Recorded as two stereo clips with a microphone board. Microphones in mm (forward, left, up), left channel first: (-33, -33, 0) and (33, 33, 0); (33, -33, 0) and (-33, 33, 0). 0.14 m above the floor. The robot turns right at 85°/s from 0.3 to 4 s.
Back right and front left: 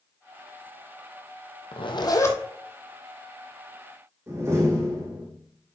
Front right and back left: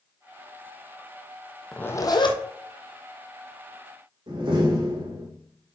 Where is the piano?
No piano in this recording.